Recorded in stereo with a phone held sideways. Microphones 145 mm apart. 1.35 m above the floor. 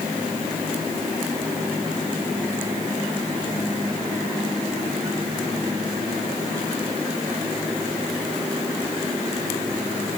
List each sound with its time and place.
Only background noise.